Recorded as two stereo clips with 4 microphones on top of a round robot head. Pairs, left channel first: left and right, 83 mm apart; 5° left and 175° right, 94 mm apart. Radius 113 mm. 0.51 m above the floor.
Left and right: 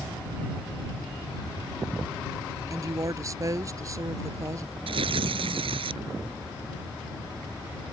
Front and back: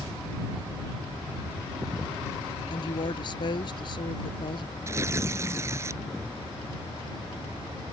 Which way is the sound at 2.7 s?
40° right.